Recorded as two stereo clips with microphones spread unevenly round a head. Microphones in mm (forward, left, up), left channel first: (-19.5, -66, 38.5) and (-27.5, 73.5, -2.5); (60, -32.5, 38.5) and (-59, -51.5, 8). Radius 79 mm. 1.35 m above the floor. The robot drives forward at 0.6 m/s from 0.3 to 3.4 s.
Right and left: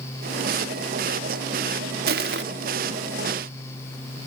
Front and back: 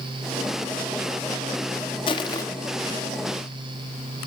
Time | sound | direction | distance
2.1 | crushing | 55° left | 1.2 m